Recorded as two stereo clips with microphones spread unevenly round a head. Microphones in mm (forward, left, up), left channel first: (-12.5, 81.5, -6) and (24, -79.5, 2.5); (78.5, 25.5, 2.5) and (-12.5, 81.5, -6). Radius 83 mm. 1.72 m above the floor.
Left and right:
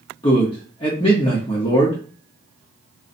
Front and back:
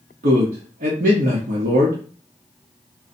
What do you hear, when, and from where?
0.2 s a man speaking: 165° left, 0.9 m